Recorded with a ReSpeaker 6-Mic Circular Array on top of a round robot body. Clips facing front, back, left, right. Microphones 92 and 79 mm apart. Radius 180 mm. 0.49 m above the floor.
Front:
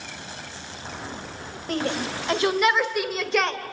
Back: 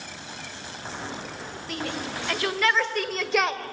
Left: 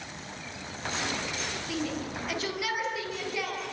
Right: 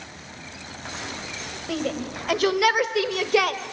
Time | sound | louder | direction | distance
1.7 | a shout | front 6 dB, right 7 dB | 50° right | 3 m